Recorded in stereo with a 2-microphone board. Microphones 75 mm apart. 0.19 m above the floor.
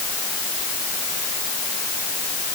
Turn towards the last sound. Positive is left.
No sound to turn to.